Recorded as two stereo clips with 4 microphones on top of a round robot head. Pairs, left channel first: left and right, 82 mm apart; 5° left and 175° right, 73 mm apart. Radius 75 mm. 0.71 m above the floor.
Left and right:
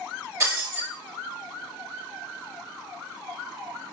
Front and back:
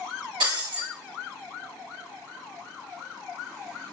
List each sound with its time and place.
0.4 s breaking glass: 150° right, 3.5 m